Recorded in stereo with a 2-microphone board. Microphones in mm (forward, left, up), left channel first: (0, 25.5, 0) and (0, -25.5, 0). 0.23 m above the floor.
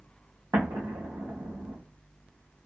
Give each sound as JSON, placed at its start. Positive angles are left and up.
{"t": 0.5, "sound": "an explosion", "side_deg": -80, "distance_m": 2.5}